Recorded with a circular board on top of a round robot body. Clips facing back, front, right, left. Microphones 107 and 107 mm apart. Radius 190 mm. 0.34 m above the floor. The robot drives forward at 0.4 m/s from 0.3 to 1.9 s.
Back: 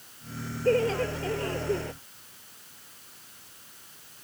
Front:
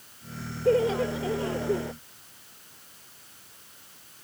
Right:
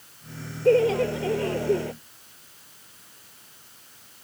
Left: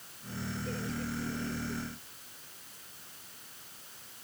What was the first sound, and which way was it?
Laughter, 80° right.